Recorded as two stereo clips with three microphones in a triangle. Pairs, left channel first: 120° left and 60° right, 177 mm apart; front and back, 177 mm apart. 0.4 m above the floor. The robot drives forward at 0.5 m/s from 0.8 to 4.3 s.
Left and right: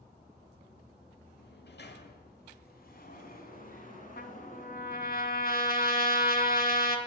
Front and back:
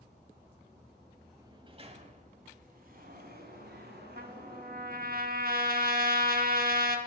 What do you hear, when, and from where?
1.4 s a sliding door: 110° left, 0.7 m; by 5.2 s 160° left, 1.8 m
4.2 s a trumpet: 150° left, 0.8 m